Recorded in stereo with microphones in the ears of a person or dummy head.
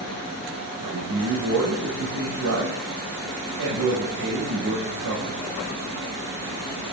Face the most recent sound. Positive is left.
turn(degrees=-75)  # may be behind; listen again after turning